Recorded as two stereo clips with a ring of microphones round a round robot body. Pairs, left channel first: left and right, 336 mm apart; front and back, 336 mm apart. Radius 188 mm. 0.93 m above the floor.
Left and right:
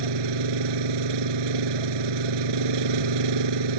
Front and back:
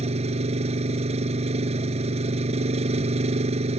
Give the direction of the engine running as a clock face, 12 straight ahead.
4 o'clock.